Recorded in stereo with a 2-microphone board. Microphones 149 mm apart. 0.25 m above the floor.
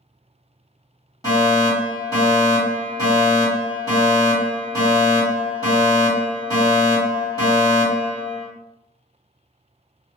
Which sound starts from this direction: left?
A fire alarm, at 1.2 s.